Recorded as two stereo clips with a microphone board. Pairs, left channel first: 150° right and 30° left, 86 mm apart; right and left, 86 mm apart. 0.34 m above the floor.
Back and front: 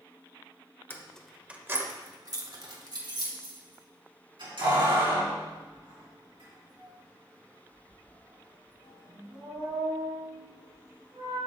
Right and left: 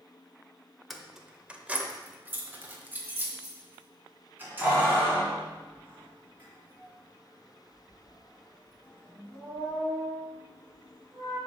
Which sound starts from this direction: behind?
Keys jangling, at 0.9 s.